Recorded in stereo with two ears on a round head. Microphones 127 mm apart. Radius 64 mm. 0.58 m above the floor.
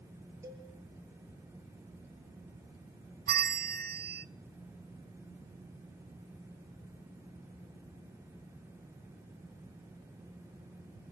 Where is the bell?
65° right (ahead or behind), 0.6 m.